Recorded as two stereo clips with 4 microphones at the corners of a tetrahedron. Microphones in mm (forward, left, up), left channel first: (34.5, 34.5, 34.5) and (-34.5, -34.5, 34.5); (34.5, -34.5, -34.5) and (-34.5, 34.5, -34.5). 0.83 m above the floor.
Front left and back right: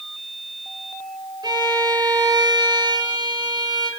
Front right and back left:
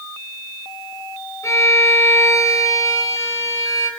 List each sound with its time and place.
1.4 s a violin: 100° right, 4.5 m